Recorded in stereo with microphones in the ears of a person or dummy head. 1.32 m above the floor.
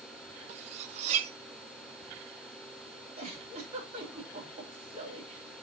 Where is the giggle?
45° right (ahead or behind), 3.5 m.